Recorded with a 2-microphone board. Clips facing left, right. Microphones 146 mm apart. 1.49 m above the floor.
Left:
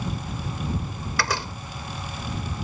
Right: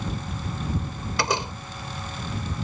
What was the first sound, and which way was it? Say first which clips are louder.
A door slam: right 2 dB; 20° right (ahead or behind).